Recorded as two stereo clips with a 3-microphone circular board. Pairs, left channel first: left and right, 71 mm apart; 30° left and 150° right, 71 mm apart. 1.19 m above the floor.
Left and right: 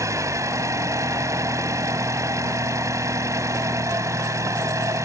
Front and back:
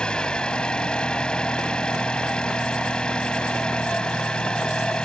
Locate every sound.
0.0 s an engine running: 45° right